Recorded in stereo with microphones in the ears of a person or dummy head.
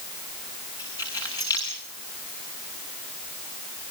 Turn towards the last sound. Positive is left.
turn(degrees=15)  # may be behind; listen again after turning